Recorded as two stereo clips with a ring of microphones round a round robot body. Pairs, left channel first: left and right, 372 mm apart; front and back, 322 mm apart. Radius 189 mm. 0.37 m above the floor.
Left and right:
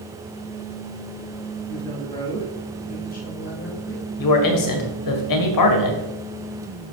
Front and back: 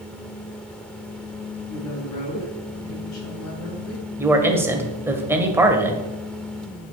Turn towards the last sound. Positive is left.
turn(degrees=100)